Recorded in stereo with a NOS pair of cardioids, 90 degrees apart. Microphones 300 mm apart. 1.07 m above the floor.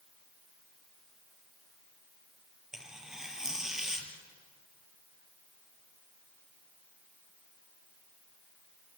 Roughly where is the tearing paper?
Ahead.